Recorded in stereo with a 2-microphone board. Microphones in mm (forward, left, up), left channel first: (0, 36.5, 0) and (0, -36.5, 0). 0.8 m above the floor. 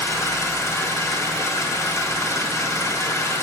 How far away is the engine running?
About 3.5 m.